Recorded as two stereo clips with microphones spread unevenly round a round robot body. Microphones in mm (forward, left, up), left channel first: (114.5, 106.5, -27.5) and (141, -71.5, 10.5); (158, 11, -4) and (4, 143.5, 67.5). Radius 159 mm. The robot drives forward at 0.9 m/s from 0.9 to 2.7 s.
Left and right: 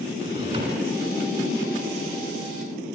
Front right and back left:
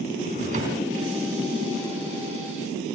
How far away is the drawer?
About 3 m.